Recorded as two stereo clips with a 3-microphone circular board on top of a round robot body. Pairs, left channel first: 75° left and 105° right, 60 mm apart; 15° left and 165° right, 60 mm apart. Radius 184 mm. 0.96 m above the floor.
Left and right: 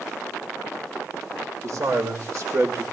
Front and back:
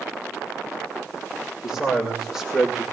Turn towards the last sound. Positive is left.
turn(degrees=-80)